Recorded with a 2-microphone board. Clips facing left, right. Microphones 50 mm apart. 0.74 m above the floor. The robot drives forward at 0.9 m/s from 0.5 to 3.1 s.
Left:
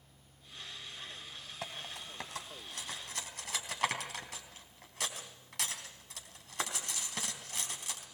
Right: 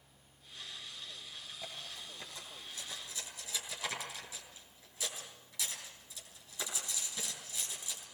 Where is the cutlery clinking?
85° left, 3.5 m; by 8.1 s 60° left (ahead or behind), 3.5 m.